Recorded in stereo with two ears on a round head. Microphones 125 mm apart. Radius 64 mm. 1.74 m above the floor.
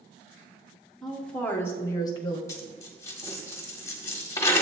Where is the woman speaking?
Centre (ahead or behind), 1.3 m; by 2.4 s 40° left (ahead or behind), 1.0 m.